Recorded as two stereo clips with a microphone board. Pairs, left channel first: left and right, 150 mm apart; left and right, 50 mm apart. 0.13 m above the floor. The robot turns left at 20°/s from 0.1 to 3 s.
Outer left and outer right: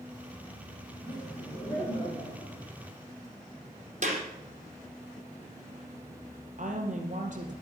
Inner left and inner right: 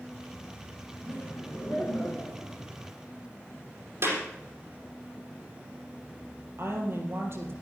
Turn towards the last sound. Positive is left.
turn(degrees=-55)  # may be behind; listen again after turning